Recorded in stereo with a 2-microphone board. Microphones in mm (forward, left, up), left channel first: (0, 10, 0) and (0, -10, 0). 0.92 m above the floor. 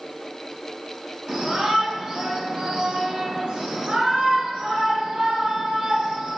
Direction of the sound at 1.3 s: 65° right (ahead or behind).